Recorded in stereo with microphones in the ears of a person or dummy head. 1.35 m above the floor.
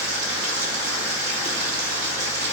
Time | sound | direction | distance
0.0 | running water | 70° right (ahead or behind) | 3.5 m